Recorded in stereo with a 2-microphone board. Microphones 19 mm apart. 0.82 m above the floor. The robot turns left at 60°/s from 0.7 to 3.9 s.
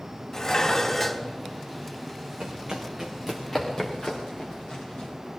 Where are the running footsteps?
55° right (ahead or behind), 3 m; by 5.1 s 40° left (ahead or behind), 7 m.